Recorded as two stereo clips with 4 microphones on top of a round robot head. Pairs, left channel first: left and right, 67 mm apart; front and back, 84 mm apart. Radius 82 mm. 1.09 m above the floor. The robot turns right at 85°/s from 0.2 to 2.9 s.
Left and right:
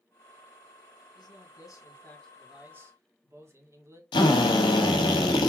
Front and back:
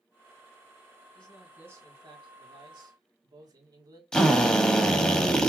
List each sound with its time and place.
1.1 s a man speaking: 70° left, 1.6 m; by 4.0 s 140° right, 1.6 m
4.1 s a drill: 80° left, 1.1 m